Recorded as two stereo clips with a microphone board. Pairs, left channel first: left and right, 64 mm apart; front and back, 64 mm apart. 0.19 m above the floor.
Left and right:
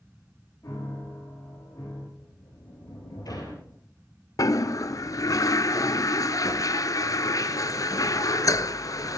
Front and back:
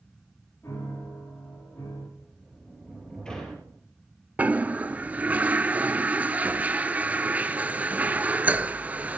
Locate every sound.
0.6 s a piano: 50° left, 6.5 m
2.2 s a sliding door: 75° left, 3 m
4.4 s a toilet flushing: 115° left, 0.5 m